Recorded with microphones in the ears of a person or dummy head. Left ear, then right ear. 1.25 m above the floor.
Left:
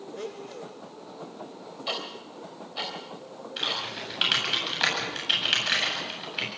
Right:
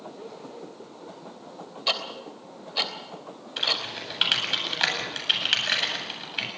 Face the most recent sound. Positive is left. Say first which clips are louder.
# right 3 dB
turn(degrees=-10)  # may be behind; listen again after turning